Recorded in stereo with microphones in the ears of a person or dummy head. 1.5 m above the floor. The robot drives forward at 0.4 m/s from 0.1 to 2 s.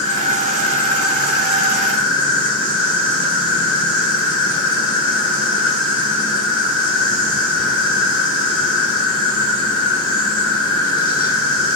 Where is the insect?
40° left (ahead or behind), 1.3 m; by 11.8 s 70° left (ahead or behind), 0.9 m.